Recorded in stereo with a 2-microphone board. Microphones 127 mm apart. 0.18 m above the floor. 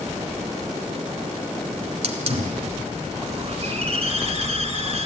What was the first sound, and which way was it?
A hiss, 50° right (ahead or behind).